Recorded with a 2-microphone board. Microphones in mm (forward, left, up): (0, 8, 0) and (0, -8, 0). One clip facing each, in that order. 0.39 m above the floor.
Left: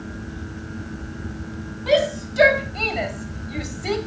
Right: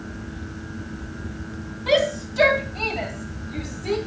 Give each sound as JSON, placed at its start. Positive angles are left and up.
{"t": 1.9, "sound": "a shout", "side_deg": 0, "distance_m": 2.5}